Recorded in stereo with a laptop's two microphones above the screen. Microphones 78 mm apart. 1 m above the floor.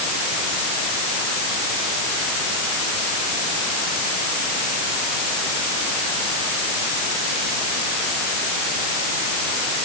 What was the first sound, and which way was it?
Only background noise.